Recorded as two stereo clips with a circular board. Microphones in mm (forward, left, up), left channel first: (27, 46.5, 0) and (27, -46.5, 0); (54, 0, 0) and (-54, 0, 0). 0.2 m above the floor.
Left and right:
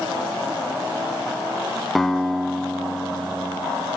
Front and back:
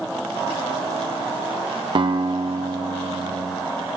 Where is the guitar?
175° left, 0.7 m.